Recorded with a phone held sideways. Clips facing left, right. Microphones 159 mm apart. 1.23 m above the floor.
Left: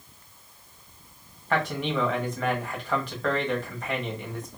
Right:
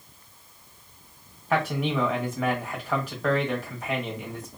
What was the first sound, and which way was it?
A man speaking, 5° right (ahead or behind).